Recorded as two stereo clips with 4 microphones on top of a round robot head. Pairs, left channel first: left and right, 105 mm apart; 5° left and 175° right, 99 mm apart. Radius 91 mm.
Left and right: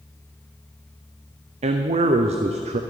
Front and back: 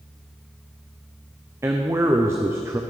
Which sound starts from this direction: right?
A man speaking, at 1.6 s.